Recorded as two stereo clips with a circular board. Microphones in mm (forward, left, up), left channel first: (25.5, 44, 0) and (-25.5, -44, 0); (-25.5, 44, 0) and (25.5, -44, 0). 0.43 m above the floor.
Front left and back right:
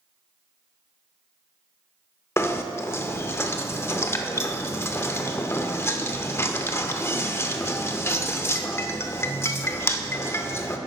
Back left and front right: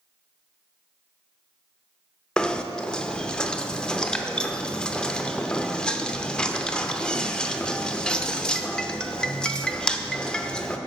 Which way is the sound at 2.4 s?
50° left.